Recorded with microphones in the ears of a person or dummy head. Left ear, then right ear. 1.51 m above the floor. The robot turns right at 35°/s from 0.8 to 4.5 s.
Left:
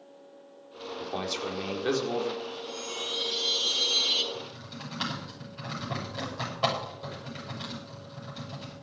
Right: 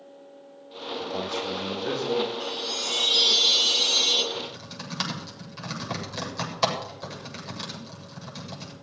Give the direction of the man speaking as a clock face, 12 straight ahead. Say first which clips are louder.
Right 2 dB; 10 o'clock.